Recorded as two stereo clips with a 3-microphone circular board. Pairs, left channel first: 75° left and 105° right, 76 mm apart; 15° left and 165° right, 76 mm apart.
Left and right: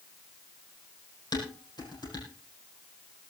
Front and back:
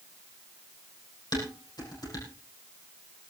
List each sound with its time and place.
1.3 s dishes clattering: 45° left, 6 m